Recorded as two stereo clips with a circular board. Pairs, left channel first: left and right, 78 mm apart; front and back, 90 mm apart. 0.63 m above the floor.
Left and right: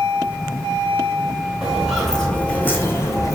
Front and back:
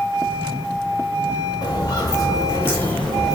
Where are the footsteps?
10° right, 0.9 m; by 3.4 s 85° left, 0.8 m.